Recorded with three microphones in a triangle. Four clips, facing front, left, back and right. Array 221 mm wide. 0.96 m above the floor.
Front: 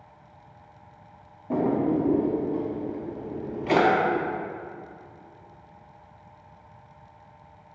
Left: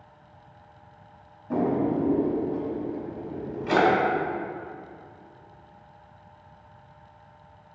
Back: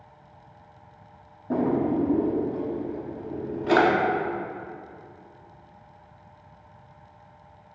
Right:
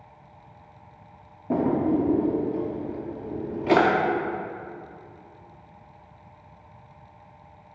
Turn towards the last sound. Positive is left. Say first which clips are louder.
# right 2 dB, even
turn(degrees=-105)